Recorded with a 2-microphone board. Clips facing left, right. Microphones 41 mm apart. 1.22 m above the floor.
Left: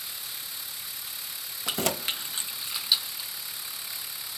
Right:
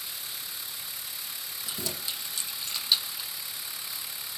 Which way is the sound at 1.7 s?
70° left (ahead or behind).